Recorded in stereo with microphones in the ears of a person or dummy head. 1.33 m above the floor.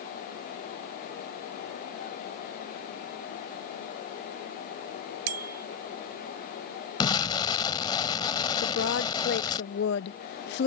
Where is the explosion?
15° left (ahead or behind).